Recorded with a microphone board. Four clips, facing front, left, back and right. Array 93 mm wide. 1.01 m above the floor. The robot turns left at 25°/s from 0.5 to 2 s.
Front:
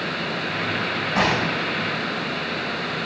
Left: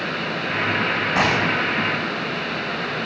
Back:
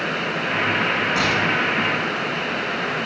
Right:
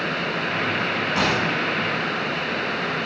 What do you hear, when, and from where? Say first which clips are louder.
1.2 s a gunshot: left 3 dB, back 1 dB; 55° left, 4 m; by 1.7 s 40° left, 4 m